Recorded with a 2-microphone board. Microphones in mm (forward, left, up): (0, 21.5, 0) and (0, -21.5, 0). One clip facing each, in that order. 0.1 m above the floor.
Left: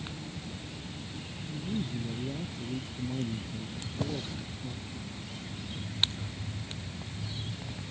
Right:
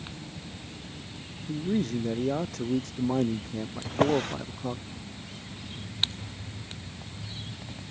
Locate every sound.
1.5 s a man speaking: 75° right (ahead or behind)
3.9 s a drawer: 60° right (ahead or behind)